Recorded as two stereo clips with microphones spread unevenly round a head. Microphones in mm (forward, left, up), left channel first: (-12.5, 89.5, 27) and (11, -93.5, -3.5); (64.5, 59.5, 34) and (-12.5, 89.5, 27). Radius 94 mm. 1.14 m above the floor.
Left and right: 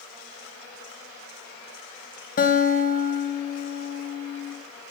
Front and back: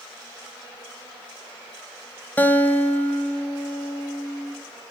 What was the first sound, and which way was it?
A guitar, 50° left.